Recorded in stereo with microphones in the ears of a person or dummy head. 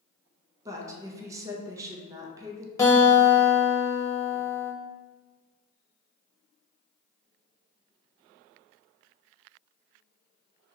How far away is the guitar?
About 0.8 m.